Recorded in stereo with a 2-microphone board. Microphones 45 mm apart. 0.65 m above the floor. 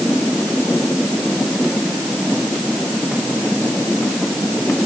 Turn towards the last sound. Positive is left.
No sound to turn to.